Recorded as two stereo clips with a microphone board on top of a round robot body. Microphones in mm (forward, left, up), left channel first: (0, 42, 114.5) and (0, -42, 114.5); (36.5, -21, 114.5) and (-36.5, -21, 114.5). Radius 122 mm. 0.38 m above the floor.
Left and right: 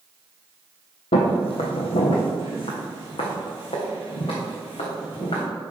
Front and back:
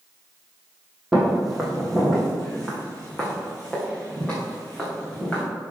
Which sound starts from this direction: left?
Footsteps, at 1.1 s.